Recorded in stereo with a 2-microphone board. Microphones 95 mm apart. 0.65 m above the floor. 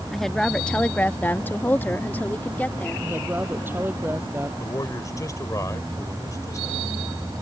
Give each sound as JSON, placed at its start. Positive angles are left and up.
{"t": 0.1, "sound": "a woman speaking", "side_deg": 5}
{"t": 3.0, "sound": "a woman speaking", "side_deg": -20}
{"t": 4.6, "sound": "a man speaking", "side_deg": 35}